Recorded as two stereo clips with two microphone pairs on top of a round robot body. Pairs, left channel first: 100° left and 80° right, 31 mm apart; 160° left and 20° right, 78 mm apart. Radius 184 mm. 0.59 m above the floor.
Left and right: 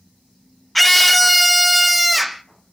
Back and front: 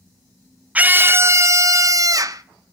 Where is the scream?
5° left, 1.1 m.